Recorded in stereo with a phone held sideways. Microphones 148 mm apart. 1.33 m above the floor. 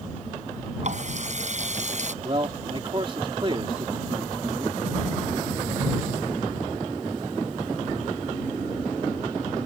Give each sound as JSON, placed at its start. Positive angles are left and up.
{"t": 0.8, "sound": "a running tap", "side_deg": -55}
{"t": 2.2, "sound": "a man speaking", "side_deg": -35}